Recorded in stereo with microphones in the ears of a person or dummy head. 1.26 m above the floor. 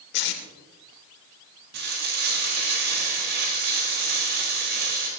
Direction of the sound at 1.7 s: 60° right (ahead or behind).